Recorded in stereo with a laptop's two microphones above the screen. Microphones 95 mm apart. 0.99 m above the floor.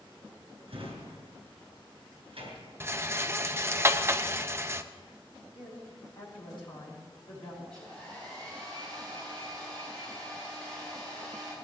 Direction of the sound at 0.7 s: 70° right (ahead or behind).